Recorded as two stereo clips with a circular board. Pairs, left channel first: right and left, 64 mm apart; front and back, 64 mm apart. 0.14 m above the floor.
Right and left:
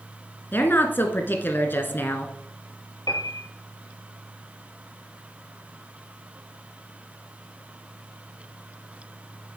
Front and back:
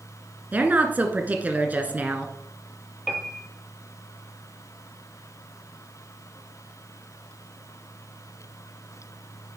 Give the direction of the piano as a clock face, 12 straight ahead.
3 o'clock.